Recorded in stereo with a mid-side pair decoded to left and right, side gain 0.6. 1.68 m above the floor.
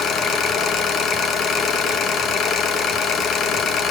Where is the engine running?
50° left, 2 m.